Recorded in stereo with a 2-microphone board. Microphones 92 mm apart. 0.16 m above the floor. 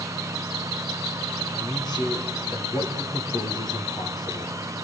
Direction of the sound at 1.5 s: 50° left (ahead or behind).